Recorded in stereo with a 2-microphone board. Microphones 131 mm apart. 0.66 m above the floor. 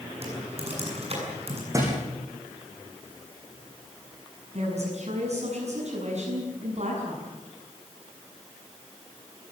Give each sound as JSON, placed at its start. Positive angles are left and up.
{"t": 0.2, "sound": "typing on a keyboard", "side_deg": -50, "distance_m": 7.5}
{"t": 1.7, "sound": "a thud", "side_deg": -25, "distance_m": 8.0}
{"t": 4.5, "sound": "a woman speaking", "side_deg": -55, "distance_m": 7.5}